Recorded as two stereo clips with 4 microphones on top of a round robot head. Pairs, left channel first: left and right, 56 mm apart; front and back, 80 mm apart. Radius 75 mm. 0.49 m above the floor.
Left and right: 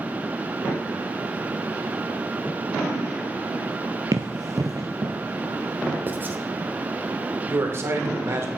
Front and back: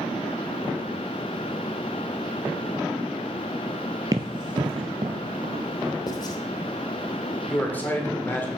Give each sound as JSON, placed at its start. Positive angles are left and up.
{"t": 4.1, "sound": "running footsteps", "azimuth_deg": -125, "distance_m": 0.5}
{"t": 6.1, "sound": "writing", "azimuth_deg": -35, "distance_m": 1.1}
{"t": 7.5, "sound": "a man speaking", "azimuth_deg": -60, "distance_m": 1.9}